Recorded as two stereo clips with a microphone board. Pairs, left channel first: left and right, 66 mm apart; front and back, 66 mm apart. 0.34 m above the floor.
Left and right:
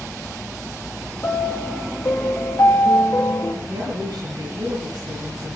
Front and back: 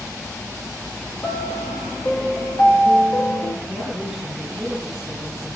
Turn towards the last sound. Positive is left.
turn(degrees=-95)